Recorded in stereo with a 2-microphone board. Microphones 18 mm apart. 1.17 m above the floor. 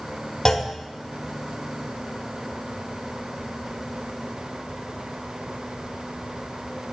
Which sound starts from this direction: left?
A clunk, at 0.5 s.